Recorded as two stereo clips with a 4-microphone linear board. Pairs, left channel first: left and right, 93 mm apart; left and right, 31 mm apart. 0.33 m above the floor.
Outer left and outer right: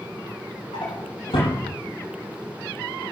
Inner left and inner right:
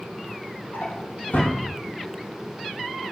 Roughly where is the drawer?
Left.